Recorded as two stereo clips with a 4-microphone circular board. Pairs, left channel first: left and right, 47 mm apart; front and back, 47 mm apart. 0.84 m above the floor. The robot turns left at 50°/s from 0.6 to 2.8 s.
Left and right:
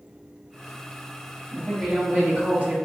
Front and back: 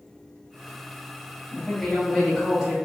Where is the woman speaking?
45° right, 0.9 m; by 2.8 s 110° right, 0.9 m.